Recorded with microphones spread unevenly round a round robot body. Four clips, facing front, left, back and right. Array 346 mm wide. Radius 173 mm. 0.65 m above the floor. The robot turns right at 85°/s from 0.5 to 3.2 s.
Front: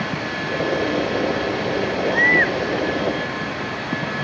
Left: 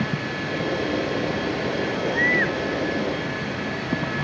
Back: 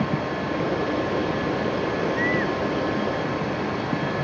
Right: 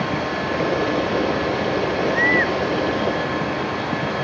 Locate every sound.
2.0 s a baby crying: 20° right; by 2.6 s 25° left